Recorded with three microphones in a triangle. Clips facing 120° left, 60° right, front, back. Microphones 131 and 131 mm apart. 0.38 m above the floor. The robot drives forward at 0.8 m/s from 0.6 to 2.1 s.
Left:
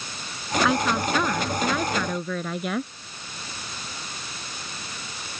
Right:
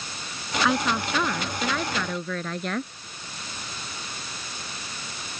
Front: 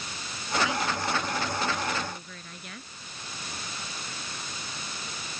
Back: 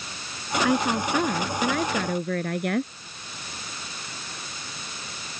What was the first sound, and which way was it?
A woman speaking, 150° right.